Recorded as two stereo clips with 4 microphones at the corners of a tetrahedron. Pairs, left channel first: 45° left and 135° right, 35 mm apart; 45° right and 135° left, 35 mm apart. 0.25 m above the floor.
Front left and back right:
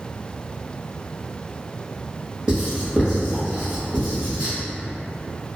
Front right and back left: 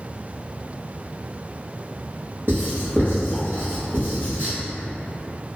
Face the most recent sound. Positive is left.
turn(degrees=155)